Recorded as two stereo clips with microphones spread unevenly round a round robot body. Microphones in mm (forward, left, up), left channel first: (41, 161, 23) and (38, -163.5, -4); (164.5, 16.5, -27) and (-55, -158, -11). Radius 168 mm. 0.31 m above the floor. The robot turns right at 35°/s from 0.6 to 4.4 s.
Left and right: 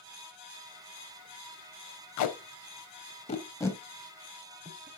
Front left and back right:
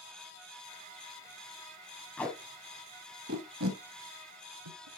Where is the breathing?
I don't hear breathing.